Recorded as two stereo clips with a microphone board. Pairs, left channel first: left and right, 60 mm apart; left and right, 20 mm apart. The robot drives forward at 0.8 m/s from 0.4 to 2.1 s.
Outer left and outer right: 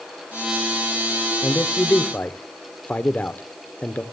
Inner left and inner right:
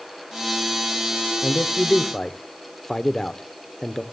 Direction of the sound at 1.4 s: 25° left (ahead or behind).